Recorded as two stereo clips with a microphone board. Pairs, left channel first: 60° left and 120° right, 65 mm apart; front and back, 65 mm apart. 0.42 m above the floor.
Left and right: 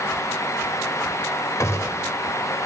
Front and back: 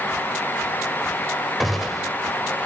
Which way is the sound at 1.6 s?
95° left.